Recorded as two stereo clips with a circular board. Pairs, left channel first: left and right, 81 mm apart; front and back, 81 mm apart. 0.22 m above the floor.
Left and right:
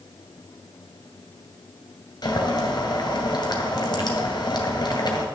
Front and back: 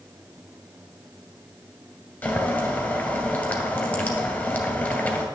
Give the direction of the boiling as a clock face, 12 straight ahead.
10 o'clock.